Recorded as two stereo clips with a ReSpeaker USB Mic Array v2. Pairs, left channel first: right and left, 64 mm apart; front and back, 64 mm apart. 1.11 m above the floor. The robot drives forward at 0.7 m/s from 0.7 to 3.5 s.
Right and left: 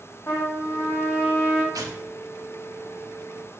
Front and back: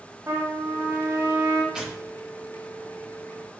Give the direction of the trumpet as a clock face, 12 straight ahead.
5 o'clock.